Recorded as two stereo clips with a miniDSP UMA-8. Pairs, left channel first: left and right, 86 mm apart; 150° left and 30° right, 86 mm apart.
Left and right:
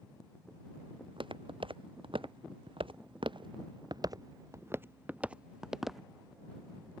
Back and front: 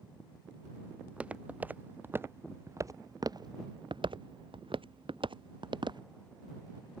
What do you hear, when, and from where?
1.0 s footsteps: 105° right; by 6.0 s straight ahead